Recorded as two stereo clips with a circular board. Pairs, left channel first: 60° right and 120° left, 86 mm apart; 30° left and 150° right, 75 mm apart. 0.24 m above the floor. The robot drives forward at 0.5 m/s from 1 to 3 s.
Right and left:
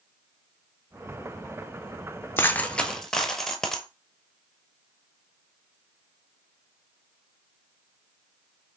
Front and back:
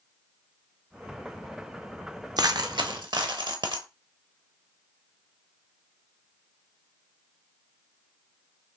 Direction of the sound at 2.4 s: 120° right.